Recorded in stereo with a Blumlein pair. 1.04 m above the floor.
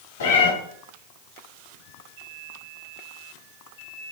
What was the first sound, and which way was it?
A cat meowing, 60° left.